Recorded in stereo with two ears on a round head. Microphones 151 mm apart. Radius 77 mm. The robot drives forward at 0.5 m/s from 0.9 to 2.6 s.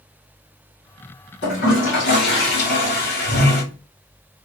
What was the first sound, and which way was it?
A toilet flushing, 70° left (ahead or behind).